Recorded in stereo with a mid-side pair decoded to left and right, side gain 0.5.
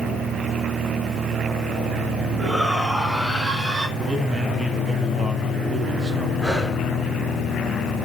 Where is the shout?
20° right, 8.5 m; by 3.9 s 25° right, 7.5 m.